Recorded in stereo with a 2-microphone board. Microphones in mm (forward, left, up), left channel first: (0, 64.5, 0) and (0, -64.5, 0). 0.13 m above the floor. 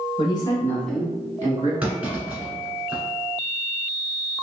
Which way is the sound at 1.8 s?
10° right (ahead or behind).